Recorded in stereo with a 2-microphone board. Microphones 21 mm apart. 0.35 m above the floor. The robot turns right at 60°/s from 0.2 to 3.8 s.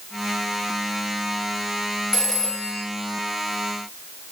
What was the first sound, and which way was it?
A phone ringing, 10° right.